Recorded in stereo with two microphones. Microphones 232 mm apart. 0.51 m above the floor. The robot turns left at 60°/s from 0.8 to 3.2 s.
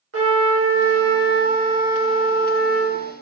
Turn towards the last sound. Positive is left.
turn(degrees=115)